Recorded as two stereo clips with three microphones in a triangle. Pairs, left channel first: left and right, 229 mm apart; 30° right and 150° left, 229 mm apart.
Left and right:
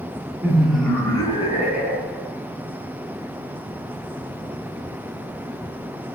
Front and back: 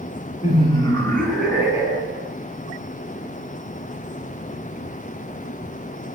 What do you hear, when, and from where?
0.4 s laughter: 25° right, 1.2 m; by 2.3 s 95° left, 1.5 m